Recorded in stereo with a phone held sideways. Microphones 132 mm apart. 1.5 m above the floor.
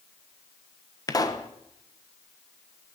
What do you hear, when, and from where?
1.1 s a pop: 30° left (ahead or behind), 1.3 m